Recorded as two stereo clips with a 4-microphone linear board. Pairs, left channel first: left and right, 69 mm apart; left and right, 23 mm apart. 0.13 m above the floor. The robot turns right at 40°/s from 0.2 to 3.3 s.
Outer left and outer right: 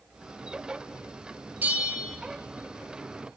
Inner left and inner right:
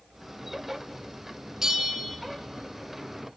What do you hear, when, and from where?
1.6 s a bell: 25° right (ahead or behind), 0.5 m; by 2.2 s 5° right (ahead or behind), 0.5 m